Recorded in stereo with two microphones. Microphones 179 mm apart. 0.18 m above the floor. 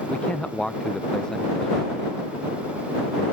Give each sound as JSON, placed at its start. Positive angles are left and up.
{"t": 0.1, "sound": "a man speaking", "side_deg": 5}